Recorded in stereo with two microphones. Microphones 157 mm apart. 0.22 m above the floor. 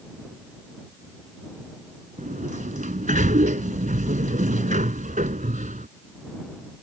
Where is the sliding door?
65° right (ahead or behind).